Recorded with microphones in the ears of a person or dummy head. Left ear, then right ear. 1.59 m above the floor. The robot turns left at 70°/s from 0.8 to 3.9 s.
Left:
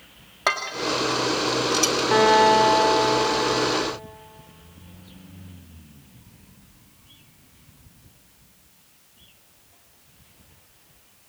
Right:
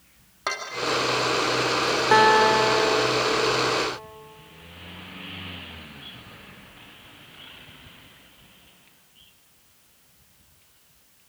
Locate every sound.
0.5 s dishes clattering: 20° left (ahead or behind), 2 m; by 2.0 s 65° left (ahead or behind), 2 m
2.1 s a guitar: 155° right, 2 m; by 3.9 s 80° left, 2 m